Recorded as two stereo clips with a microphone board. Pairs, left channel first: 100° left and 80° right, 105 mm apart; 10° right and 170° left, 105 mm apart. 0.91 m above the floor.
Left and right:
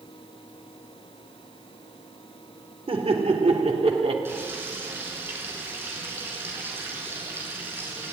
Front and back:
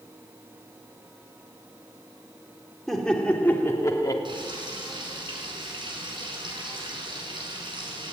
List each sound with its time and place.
2.9 s laughter: 95° right, 3.5 m; by 4.2 s 60° right, 2.5 m
4.2 s frying: 150° right, 6 m